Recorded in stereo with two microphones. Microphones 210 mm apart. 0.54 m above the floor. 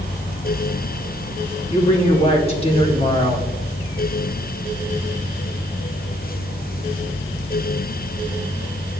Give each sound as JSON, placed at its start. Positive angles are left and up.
{"t": 1.7, "sound": "a woman speaking", "side_deg": 30, "distance_m": 1.8}